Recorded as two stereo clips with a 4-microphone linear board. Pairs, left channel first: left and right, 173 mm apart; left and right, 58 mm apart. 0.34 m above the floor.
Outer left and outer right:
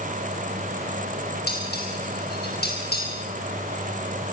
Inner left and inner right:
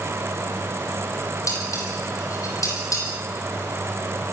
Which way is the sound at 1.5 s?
65° left (ahead or behind).